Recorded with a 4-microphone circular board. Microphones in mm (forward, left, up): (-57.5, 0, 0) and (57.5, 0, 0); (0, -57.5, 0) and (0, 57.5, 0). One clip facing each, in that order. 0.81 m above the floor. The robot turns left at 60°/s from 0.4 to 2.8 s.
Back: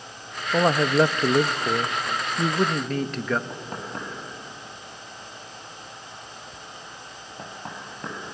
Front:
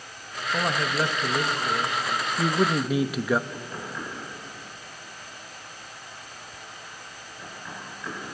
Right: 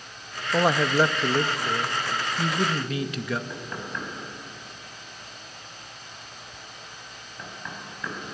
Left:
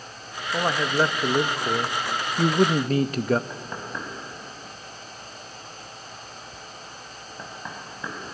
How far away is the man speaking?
About 0.6 m.